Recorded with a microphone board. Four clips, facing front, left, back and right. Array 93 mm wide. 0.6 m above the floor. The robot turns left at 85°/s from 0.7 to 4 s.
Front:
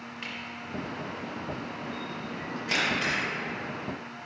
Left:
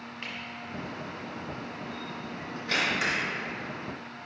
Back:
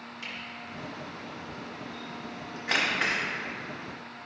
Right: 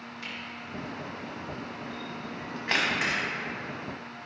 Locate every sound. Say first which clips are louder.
0.2 s a camera shutter: left 1 dB, front 2 dB; 50° left, 1.5 m; by 3.2 s 165° right, 1.5 m